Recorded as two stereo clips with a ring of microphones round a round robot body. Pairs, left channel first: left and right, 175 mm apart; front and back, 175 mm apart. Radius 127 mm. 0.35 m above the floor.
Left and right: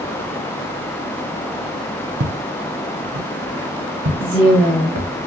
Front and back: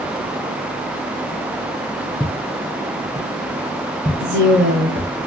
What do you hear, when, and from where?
2.2 s footsteps: 70° right, 1.2 m; by 5.1 s 105° right, 2.5 m
4.2 s a woman speaking: 170° right, 2 m